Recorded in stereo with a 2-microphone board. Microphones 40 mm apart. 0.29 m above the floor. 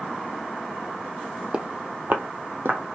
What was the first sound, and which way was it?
Footsteps, 30° right (ahead or behind).